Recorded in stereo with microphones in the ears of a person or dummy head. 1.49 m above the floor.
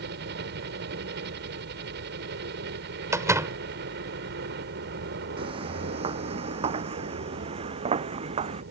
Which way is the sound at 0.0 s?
60° right (ahead or behind).